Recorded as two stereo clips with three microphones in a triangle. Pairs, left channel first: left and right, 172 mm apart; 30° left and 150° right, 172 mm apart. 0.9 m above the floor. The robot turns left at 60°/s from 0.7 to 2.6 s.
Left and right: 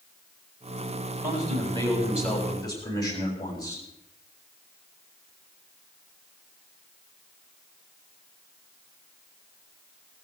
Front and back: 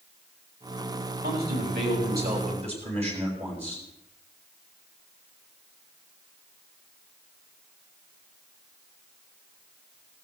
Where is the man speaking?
120° right, 7 m; by 3.9 s 160° left, 7 m.